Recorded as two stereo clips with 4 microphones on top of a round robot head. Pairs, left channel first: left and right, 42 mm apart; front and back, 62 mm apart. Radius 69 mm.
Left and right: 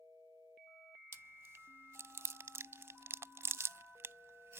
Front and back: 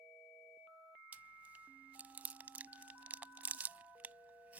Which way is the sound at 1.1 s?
110° right.